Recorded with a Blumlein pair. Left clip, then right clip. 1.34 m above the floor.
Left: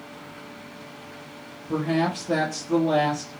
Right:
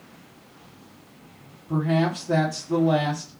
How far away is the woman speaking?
About 0.9 m.